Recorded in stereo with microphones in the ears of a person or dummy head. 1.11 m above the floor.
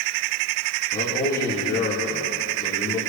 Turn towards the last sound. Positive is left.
turn(degrees=20)  # may be behind; listen again after turning